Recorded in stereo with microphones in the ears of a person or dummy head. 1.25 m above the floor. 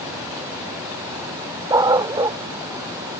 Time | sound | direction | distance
1.7 | a dog barking | 25° right (ahead or behind) | ?